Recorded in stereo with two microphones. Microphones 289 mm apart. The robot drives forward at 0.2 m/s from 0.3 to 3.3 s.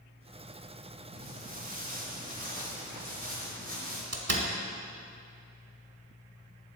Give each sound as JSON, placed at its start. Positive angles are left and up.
{"t": 1.1, "sound": "footsteps", "side_deg": -30, "distance_m": 1.2}
{"t": 4.1, "sound": "a door slam", "side_deg": -55, "distance_m": 1.2}